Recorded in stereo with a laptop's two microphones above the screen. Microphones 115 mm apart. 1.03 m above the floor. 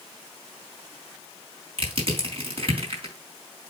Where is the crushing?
50° right (ahead or behind), 3 m.